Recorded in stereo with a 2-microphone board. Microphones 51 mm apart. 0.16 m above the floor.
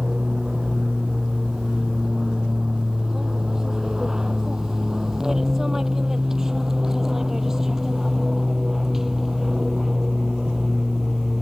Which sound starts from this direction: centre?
An aircraft, at 0.0 s.